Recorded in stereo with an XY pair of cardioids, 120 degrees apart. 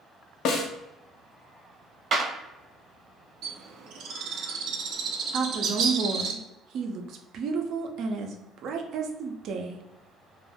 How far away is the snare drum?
About 0.5 m.